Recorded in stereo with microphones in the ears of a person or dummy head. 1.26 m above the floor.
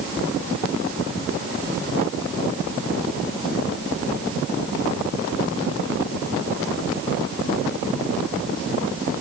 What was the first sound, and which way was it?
Only background noise.